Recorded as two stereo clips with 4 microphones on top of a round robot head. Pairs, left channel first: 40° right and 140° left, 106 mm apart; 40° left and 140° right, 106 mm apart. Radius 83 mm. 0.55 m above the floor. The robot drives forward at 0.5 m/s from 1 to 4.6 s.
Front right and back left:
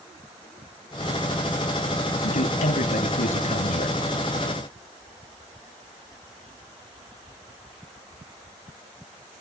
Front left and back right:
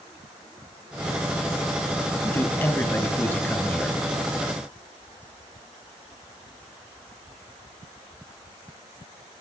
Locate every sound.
2.2 s a man speaking: 30° right, 4.5 m; by 4.0 s 35° right, 3.5 m